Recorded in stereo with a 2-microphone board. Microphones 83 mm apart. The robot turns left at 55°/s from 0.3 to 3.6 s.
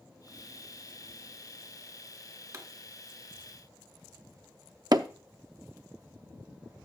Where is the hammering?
50° right (ahead or behind), 0.5 m.